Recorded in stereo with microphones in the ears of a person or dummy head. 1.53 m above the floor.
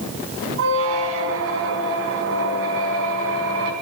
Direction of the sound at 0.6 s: 70° right (ahead or behind).